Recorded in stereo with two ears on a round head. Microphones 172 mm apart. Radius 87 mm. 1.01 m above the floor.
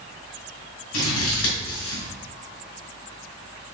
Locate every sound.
0.9 s scissors: 85° left, 2.5 m